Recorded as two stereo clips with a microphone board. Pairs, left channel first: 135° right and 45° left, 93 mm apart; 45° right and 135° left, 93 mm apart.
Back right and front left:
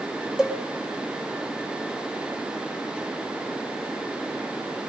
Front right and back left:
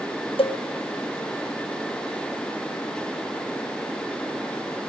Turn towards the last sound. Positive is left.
turn(degrees=-35)